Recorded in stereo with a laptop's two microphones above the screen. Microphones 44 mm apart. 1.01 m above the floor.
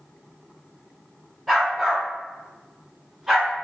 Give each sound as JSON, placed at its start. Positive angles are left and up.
{"t": 1.5, "sound": "a dog barking", "side_deg": 0, "distance_m": 1.8}